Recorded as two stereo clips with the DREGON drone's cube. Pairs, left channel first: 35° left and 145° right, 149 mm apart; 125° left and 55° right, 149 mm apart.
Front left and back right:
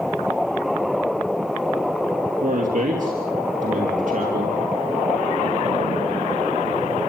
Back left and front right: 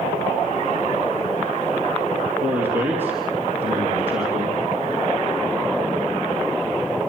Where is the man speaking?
130° right, 3 m.